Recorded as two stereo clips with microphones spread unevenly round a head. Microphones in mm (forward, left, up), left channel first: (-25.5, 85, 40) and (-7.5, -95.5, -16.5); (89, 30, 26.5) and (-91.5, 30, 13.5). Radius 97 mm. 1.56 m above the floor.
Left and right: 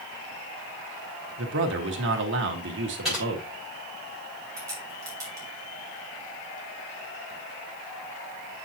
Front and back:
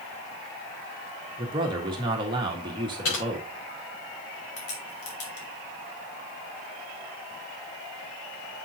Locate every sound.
1.4 s a man speaking: 110° right, 1.4 m
3.0 s typing on a keyboard: 5° left, 5.5 m
4.6 s a crack: 5° right, 3 m